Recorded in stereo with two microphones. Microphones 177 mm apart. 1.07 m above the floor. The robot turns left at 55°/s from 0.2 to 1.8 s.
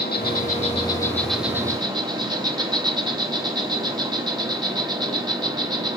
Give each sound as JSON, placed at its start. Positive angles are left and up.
{"t": 0.0, "sound": "an insect", "azimuth_deg": 65, "distance_m": 1.6}